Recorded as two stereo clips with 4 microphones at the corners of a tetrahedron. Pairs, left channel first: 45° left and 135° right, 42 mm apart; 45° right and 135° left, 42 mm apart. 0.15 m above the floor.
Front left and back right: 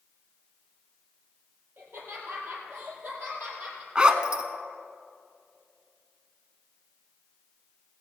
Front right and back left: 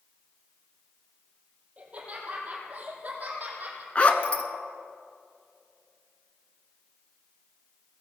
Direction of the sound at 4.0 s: 80° right.